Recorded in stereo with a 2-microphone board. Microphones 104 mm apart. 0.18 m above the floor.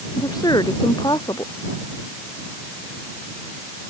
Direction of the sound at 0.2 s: 40° left (ahead or behind).